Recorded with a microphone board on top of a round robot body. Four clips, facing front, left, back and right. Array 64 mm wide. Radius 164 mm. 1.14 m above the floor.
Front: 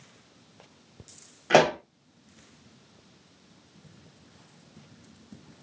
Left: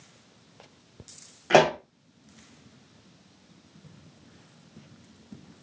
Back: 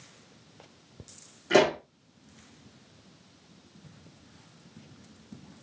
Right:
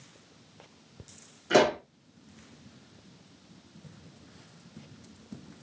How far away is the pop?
About 1.2 m.